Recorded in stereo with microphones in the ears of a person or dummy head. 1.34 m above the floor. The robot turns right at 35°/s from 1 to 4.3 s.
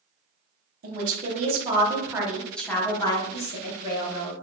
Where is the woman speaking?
45° right, 1.0 m; by 4.3 s 70° left, 1.0 m.